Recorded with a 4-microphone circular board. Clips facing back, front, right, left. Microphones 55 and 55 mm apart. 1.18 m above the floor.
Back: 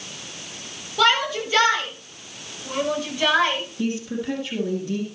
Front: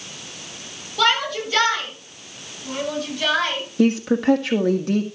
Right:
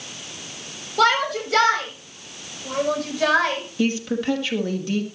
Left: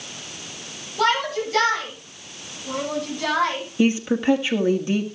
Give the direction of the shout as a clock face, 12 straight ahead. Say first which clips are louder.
Even, right 2 dB; 3 o'clock.